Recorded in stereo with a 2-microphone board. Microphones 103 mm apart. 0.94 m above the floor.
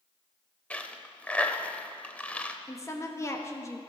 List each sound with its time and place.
0.7 s a dropped coin: 15° left (ahead or behind), 0.7 m
2.7 s a woman speaking: 30° left (ahead or behind), 1.2 m